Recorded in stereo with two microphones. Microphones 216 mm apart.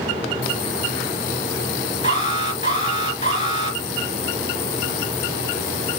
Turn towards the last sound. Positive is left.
turn(degrees=35)  # may be behind; listen again after turning